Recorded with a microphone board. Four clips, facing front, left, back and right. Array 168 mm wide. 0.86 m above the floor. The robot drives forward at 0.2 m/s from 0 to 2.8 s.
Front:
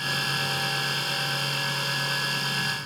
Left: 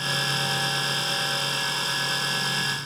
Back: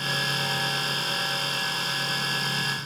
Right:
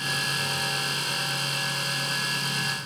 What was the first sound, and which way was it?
Only background noise.